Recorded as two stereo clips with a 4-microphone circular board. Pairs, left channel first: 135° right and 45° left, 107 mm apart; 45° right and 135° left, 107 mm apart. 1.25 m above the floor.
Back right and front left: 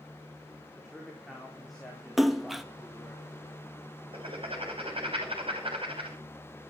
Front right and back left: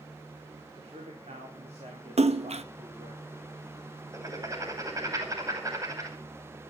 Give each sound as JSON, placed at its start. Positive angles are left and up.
{"t": 0.8, "sound": "a man speaking", "azimuth_deg": 135, "distance_m": 4.0}
{"t": 2.2, "sound": "a splash", "azimuth_deg": 135, "distance_m": 1.0}
{"t": 4.1, "sound": "writing", "azimuth_deg": 75, "distance_m": 5.5}